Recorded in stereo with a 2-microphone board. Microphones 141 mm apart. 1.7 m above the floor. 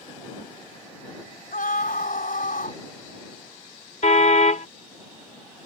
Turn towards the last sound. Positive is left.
turn(degrees=60)  # may be behind; listen again after turning